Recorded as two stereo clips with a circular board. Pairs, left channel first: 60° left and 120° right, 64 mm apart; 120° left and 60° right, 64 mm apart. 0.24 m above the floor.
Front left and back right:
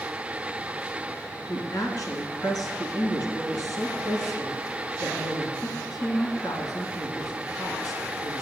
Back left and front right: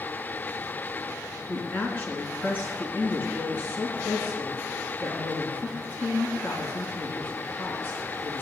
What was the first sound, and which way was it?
A woman speaking, 60° left.